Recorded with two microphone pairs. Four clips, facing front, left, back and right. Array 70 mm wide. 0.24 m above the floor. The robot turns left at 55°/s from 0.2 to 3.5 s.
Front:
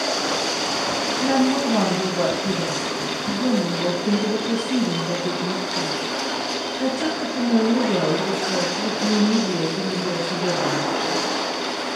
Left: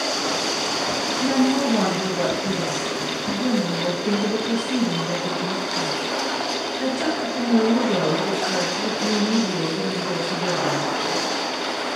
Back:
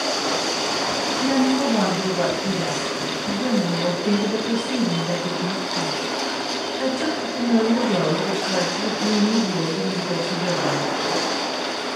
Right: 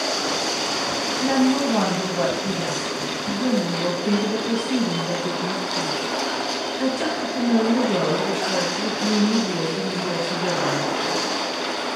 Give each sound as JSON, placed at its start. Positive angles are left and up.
{"t": 1.2, "sound": "a woman speaking", "azimuth_deg": -35, "distance_m": 1.9}